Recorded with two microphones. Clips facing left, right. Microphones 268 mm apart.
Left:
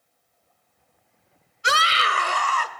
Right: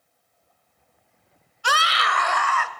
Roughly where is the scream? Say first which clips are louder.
Left 1 dB; left.